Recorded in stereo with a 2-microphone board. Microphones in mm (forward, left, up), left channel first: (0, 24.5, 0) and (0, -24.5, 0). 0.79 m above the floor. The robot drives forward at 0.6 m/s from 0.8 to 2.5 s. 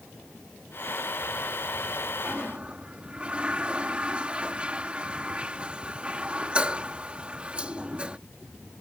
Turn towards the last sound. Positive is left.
turn(degrees=-25)  # may be behind; listen again after turning